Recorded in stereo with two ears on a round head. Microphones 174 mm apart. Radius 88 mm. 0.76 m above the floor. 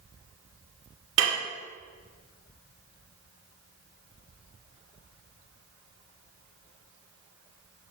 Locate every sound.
1.2 s dishes clattering: 80° right, 1.5 m